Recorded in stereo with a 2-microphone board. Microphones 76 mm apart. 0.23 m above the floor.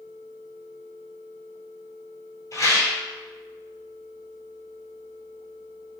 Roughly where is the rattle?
Left.